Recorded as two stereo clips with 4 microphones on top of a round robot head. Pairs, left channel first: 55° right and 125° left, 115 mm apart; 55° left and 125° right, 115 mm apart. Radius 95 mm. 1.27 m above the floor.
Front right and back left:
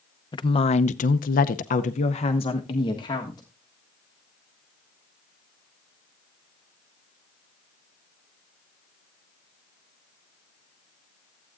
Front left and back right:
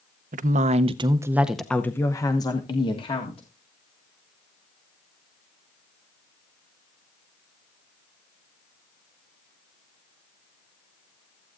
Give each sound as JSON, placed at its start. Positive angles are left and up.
{"t": 0.3, "sound": "a woman speaking", "azimuth_deg": -110, "distance_m": 0.8}